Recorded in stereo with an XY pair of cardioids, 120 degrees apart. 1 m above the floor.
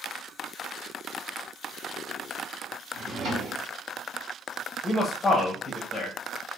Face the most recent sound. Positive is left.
turn(degrees=20)